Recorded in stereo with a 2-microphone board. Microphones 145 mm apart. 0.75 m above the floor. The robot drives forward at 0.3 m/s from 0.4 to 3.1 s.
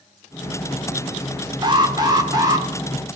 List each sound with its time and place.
1.6 s an alarm: 30° right (ahead or behind), 1.7 m; by 2.7 s 25° right (ahead or behind), 2.0 m